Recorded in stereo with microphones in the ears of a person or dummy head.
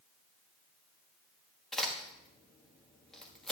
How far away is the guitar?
No guitar in this recording.